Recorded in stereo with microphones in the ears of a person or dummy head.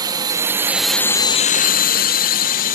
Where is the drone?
25° right (ahead or behind); by 2.8 s 45° left (ahead or behind).